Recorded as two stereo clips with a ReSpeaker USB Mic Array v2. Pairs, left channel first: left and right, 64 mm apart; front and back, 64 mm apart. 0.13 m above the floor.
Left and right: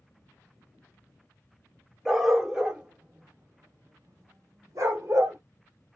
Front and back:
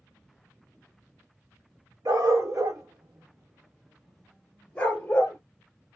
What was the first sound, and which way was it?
A dog barking, straight behind.